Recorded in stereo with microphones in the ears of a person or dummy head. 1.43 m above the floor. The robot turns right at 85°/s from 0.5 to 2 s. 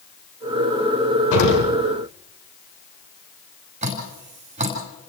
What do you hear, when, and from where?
1.3 s an explosion: 95° left, 4.5 m; by 1.7 s 130° left, 4.5 m
3.8 s dripping: 35° right (ahead or behind), 4.5 m